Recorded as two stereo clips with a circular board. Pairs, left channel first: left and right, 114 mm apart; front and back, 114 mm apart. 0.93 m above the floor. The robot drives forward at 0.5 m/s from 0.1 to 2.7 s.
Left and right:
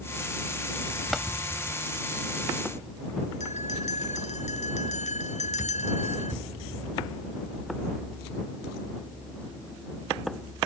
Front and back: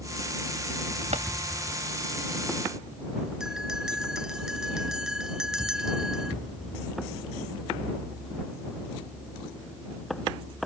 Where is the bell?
95° left.